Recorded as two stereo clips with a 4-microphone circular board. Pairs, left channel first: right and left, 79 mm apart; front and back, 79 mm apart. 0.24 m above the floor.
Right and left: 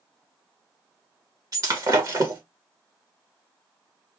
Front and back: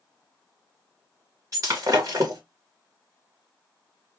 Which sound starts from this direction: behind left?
Breaking glass, at 1.5 s.